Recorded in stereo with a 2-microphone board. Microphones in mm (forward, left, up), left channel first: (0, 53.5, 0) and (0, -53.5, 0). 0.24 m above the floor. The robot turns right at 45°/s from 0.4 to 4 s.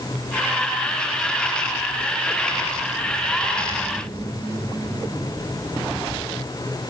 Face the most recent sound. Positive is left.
No sound to turn to.